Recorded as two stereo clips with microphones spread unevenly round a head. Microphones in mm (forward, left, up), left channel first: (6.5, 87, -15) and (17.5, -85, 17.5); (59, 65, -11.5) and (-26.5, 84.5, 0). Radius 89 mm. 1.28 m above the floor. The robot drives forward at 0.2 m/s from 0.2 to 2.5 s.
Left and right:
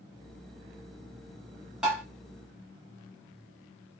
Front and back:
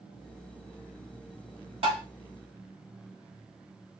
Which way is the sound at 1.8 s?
170° right.